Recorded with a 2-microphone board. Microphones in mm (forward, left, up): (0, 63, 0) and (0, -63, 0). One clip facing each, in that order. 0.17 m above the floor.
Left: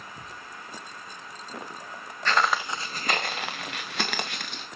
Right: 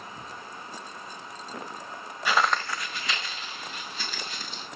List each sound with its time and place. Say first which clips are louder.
2.2 s footsteps: even; 10° right (ahead or behind), 1.0 m; by 4.7 s 80° left, 2 m